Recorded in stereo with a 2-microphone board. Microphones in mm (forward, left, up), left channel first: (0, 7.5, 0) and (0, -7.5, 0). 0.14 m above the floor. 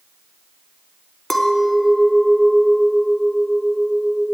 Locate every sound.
1.3 s a clink: 20° left (ahead or behind), 0.9 m